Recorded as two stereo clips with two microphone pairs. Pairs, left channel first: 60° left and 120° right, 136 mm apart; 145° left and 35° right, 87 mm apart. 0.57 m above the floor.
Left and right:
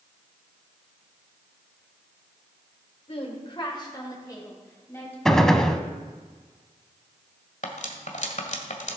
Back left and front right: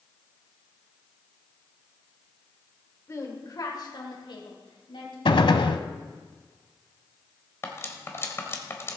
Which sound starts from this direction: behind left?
A gunshot, at 5.2 s.